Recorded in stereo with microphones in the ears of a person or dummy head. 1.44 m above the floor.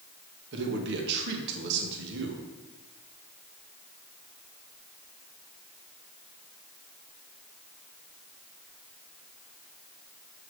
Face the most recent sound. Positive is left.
turn(degrees=-65)  # may be behind; listen again after turning